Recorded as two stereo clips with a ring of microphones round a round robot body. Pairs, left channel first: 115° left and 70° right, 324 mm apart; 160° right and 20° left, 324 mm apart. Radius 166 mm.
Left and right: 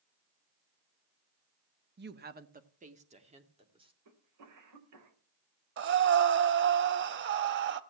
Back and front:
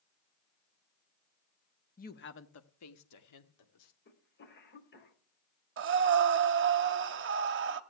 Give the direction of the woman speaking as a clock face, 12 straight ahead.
3 o'clock.